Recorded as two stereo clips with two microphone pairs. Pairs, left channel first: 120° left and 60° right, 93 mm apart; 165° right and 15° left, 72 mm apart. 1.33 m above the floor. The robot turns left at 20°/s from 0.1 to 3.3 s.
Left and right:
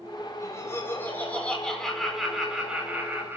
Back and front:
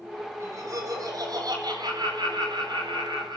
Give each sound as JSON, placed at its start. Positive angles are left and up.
{"t": 0.4, "sound": "laughter", "azimuth_deg": 65, "distance_m": 9.0}